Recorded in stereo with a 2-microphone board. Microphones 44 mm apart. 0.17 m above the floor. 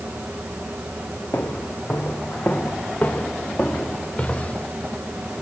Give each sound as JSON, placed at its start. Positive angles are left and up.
{"t": 1.3, "sound": "footsteps", "side_deg": 60, "distance_m": 3.5}